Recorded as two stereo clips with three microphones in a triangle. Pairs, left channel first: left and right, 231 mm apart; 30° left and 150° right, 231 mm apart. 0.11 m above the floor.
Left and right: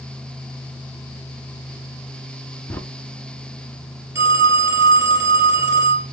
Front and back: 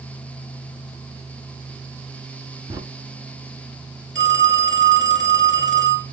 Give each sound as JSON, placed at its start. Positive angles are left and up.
{"t": 2.7, "sound": "a crack", "azimuth_deg": 160, "distance_m": 0.7}
{"t": 4.2, "sound": "a phone ringing", "azimuth_deg": -165, "distance_m": 2.0}